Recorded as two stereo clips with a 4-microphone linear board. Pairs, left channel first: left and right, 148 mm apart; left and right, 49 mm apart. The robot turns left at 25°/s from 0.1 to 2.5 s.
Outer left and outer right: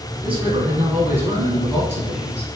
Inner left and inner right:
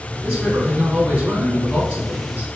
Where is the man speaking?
10° right (ahead or behind), 1.7 m; by 2.5 s 20° right (ahead or behind), 1.7 m.